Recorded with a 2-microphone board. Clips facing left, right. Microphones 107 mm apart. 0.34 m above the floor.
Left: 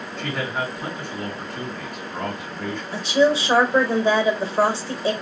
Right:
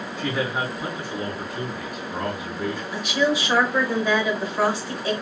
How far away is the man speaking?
About 3 m.